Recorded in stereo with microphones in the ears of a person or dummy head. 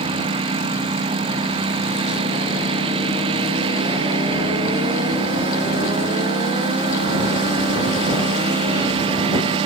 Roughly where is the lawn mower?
Right.